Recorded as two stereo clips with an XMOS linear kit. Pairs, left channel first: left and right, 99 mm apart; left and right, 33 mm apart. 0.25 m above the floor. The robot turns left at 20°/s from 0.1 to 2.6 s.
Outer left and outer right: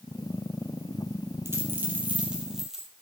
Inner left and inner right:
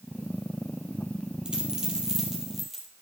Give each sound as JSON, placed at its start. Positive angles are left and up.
{"t": 1.4, "sound": "a dropped coin", "side_deg": -25, "distance_m": 3.0}